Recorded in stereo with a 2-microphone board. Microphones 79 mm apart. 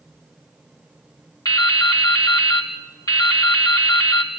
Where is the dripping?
55° left (ahead or behind), 2.5 m.